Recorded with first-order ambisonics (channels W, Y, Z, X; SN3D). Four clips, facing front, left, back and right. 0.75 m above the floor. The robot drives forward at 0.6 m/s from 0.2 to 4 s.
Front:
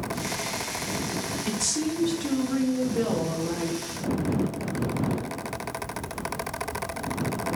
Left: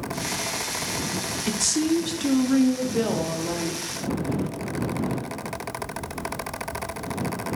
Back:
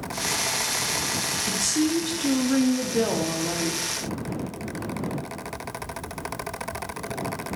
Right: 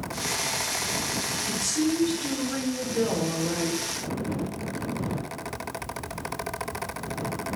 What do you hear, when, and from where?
1.5 s a woman speaking: 80° left, 0.9 m; by 3.8 s 155° left, 1.6 m